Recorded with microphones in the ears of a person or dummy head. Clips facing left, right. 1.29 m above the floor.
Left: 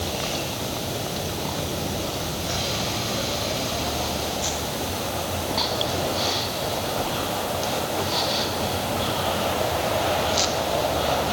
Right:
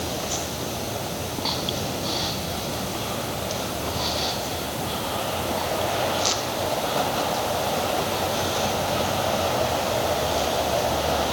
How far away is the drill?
No drill in this recording.